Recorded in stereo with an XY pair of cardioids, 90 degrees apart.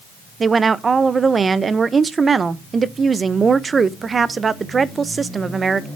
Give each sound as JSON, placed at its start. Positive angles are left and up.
{"t": 0.4, "sound": "a woman speaking", "azimuth_deg": -40, "distance_m": 0.8}